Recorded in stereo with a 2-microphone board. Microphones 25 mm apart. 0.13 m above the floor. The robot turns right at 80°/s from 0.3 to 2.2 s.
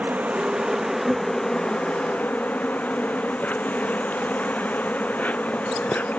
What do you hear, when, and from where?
0.0 s an insect: 60° right; by 6.2 s 90° left